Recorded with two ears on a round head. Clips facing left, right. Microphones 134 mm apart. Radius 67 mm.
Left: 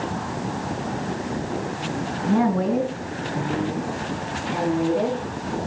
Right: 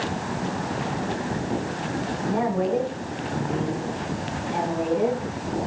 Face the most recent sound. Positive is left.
turn(degrees=55)  # may be behind; listen again after turning